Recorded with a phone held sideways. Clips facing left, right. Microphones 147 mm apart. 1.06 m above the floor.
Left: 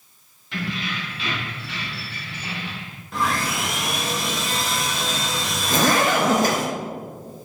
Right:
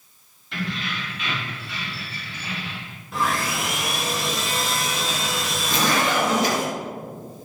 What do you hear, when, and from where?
0.5 s keys jangling: centre (ahead or behind), 1.6 m; by 3.0 s 50° left (ahead or behind), 2.5 m
3.1 s sawing: centre (ahead or behind), 0.7 m
5.7 s a zipper: 50° left (ahead or behind), 0.6 m